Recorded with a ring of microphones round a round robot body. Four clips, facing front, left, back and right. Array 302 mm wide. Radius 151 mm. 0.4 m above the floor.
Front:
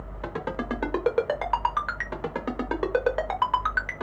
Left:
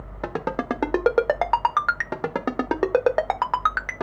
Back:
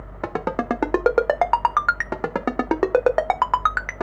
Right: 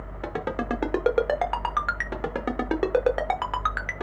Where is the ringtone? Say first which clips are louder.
Left 3 dB, back 7 dB; 155° left, 0.6 m.